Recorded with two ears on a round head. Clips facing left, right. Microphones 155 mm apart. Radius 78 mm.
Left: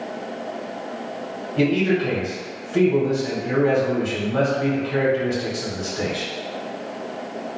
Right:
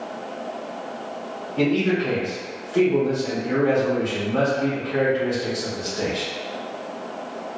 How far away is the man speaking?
About 1.7 m.